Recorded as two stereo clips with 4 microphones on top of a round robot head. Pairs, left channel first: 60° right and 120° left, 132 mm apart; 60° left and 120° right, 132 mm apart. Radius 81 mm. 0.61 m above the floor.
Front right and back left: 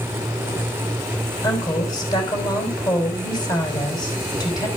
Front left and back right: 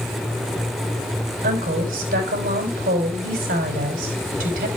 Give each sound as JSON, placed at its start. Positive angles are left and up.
{"t": 1.4, "sound": "a woman speaking", "azimuth_deg": -120, "distance_m": 4.0}